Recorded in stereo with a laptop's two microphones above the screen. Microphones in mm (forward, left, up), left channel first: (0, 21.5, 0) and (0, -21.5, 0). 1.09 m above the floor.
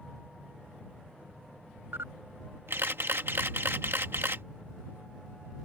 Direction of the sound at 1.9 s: 65° right (ahead or behind).